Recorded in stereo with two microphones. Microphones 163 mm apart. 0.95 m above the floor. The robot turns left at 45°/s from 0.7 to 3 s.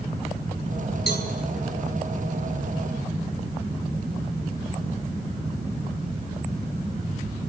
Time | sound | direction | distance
1.1 | a cowbell | 75° left (ahead or behind) | 4.5 m